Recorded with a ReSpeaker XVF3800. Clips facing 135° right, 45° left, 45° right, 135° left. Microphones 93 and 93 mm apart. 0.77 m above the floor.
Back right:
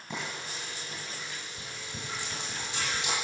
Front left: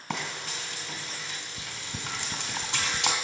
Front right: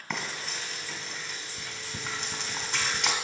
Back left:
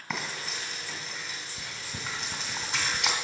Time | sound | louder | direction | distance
0.1 | frying | front left 3 dB, even | 50° left | 2 m